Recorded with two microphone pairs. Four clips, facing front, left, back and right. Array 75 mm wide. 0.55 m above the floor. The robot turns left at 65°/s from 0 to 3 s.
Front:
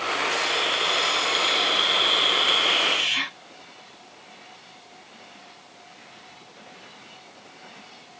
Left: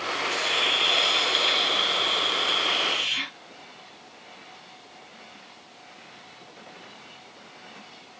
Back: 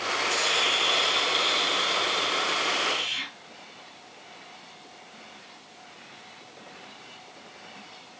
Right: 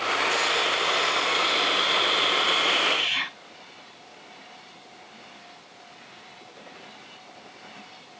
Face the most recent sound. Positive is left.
turn(degrees=-35)